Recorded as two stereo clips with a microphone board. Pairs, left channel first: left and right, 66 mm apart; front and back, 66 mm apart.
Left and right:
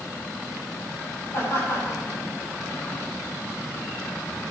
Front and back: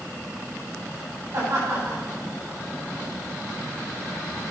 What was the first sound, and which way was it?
Laughter, 140° left.